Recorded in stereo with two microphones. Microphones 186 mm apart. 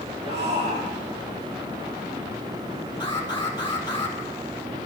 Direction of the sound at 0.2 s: 40° right (ahead or behind).